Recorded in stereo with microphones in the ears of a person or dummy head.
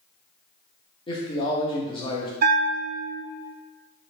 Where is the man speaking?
30° left (ahead or behind), 0.7 m.